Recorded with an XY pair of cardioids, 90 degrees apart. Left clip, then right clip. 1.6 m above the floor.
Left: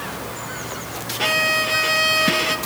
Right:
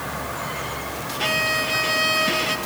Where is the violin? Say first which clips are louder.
Left 3 dB; 25° left, 1.4 m.